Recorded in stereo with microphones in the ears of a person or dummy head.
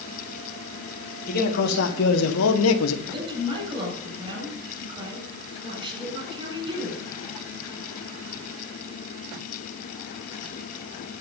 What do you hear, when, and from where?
1.3 s a man speaking: 55° left (ahead or behind), 2.5 m; by 3.0 s 85° left, 1.6 m
3.0 s a woman speaking: 25° right (ahead or behind), 8 m